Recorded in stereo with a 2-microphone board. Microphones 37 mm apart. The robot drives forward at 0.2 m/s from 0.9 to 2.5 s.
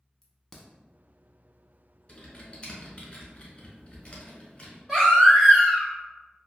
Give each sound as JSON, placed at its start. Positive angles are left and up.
{"t": 0.2, "sound": "a crack", "side_deg": 15, "distance_m": 0.6}
{"t": 2.1, "sound": "typing on a keyboard", "side_deg": 35, "distance_m": 1.1}
{"t": 4.9, "sound": "a baby crying", "side_deg": 15, "distance_m": 1.5}